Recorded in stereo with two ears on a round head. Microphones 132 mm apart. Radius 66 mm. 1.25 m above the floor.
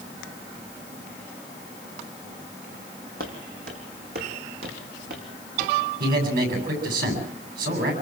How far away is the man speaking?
About 8 m.